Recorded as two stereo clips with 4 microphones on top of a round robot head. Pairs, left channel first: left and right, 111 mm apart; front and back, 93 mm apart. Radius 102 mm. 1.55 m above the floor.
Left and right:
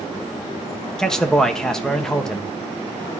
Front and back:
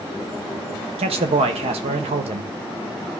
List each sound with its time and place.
1.0 s a man speaking: 175° left, 1.0 m